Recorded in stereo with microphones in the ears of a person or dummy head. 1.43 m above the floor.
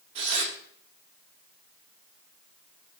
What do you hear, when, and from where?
0.1 s tearing paper: 30° right (ahead or behind), 1.3 m